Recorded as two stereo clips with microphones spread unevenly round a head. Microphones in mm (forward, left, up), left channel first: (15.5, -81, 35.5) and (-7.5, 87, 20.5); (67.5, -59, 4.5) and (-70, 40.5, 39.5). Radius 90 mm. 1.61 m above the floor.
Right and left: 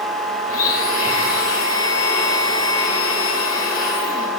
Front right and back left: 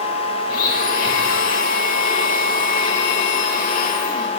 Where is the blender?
75° right, 3.5 m.